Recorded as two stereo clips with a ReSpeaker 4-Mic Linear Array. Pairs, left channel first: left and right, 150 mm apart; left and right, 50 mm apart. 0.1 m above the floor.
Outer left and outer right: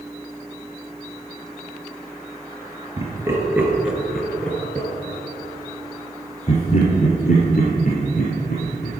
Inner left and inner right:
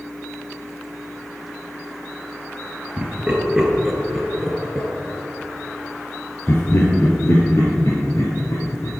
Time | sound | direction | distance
3.0 | laughter | 20° right (ahead or behind) | 2 m